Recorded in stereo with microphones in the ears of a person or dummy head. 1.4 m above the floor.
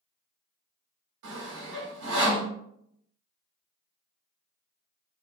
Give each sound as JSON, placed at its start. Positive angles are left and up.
{"t": 1.2, "sound": "sawing", "side_deg": -65, "distance_m": 1.8}